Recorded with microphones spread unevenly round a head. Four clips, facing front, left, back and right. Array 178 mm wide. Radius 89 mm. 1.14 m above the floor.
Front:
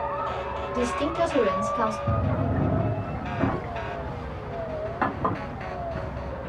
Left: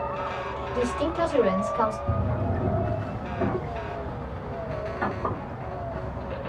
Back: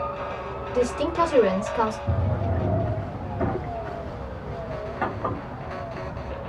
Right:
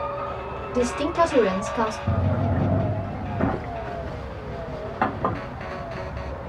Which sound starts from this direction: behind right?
A woman speaking, at 0.7 s.